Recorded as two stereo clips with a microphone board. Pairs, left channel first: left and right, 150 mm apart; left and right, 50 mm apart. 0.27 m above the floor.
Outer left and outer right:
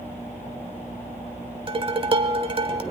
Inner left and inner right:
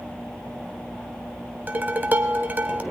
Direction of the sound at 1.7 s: 35° right (ahead or behind).